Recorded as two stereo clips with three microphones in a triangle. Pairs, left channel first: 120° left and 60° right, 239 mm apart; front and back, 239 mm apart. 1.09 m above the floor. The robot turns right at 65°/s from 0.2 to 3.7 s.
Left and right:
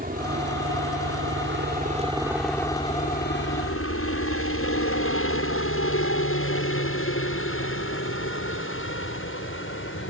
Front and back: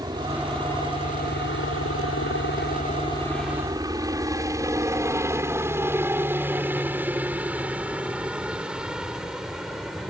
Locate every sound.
0.0 s a helicopter: 110° right; by 10.1 s 90° left